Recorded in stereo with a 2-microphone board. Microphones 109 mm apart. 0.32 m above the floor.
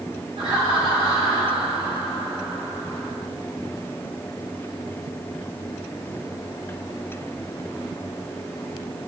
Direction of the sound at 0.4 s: 65° right (ahead or behind).